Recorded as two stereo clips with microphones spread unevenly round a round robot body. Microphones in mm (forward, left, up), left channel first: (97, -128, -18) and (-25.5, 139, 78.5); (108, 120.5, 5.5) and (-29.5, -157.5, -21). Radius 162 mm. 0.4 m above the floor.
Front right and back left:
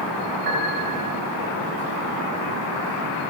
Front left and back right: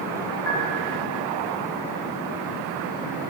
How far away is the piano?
About 2.5 m.